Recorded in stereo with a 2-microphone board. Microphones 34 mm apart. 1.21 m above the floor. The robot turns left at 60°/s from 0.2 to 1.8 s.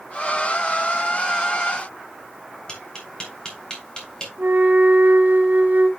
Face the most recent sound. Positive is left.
turn(degrees=-60)  # may be behind; listen again after turning